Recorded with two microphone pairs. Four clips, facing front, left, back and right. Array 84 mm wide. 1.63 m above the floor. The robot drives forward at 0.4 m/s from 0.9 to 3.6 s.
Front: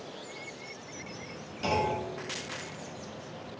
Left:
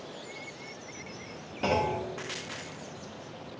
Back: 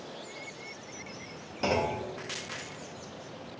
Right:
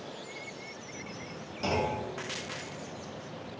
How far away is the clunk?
About 0.6 m.